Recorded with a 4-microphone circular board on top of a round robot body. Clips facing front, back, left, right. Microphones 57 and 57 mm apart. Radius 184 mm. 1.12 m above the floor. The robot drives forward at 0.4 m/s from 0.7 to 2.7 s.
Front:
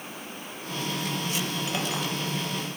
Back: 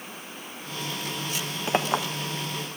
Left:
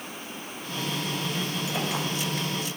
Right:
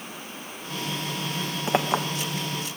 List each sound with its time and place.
1.7 s a clink: 125° right, 0.7 m; by 2.1 s 135° right, 0.8 m